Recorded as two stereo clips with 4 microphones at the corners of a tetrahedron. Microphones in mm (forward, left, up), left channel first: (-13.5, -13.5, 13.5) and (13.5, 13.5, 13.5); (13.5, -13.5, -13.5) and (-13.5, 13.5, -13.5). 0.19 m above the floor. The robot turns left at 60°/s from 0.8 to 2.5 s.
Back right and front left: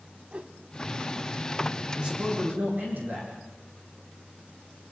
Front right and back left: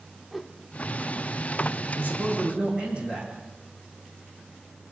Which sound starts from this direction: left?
A man speaking, at 1.9 s.